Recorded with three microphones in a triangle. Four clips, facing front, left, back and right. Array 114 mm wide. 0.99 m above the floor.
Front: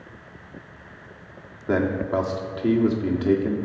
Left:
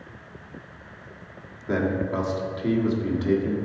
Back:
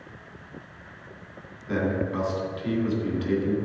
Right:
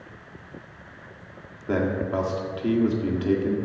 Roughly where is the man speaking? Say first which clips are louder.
Even, front 4 dB; ahead.